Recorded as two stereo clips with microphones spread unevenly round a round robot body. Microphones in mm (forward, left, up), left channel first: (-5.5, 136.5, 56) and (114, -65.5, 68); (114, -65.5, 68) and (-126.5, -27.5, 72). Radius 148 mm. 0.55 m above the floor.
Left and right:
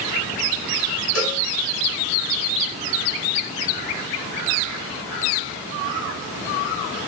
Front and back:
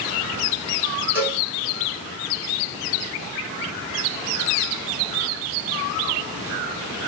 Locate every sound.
1.1 s a cowbell: 85° left, 5.5 m